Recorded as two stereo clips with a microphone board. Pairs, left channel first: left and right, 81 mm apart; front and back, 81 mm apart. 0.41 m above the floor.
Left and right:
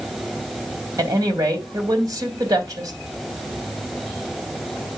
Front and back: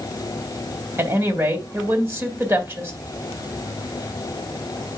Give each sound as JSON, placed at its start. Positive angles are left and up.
{"t": 1.0, "sound": "a woman speaking", "azimuth_deg": -125, "distance_m": 3.0}